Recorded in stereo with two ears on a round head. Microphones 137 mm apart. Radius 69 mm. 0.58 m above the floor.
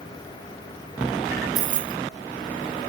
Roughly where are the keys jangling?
Right.